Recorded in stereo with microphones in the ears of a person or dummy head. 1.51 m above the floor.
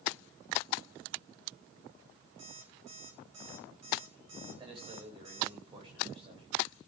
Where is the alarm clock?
30° right (ahead or behind), 5 m.